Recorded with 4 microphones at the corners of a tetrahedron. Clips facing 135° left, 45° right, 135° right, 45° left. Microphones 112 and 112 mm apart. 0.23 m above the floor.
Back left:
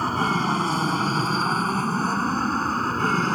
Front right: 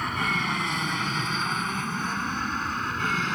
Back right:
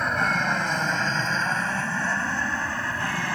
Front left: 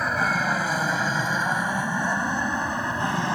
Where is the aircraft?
130° left; by 3.4 s 105° left.